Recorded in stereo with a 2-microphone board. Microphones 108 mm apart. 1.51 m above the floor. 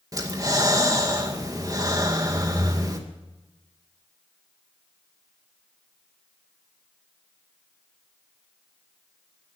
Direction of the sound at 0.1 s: 35° right (ahead or behind).